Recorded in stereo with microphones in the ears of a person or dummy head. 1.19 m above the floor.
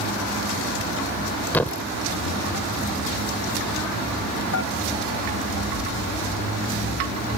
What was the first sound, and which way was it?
A thud, 10° left (ahead or behind).